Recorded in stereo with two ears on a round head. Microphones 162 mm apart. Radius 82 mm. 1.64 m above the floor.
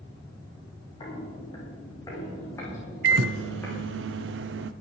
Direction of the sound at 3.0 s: 70° right (ahead or behind).